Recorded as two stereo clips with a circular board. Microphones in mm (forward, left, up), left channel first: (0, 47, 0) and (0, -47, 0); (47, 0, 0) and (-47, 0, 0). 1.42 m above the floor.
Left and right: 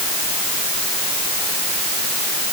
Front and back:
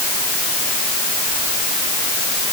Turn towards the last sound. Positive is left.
No sound to turn to.